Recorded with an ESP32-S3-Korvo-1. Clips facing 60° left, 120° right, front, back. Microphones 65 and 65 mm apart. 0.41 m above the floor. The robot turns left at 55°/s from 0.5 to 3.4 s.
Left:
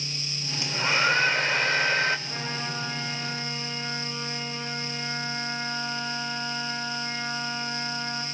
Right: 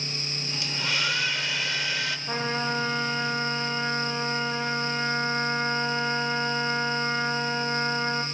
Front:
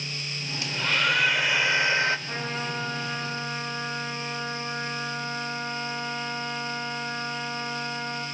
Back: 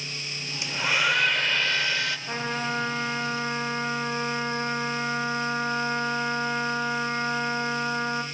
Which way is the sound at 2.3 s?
110° right.